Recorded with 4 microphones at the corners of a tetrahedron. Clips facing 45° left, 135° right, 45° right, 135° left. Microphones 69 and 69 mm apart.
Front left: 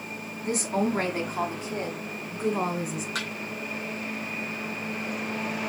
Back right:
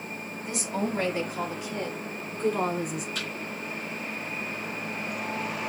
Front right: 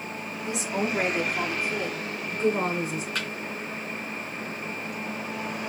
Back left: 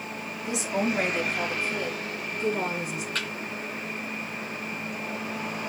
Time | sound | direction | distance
0.4 | a woman speaking | 45° left | 2 m
3.1 | a thud | 40° left | 4 m